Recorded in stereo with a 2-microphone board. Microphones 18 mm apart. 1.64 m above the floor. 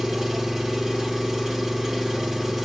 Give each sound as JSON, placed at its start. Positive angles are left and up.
{"t": 0.0, "sound": "an engine running", "side_deg": -25, "distance_m": 0.8}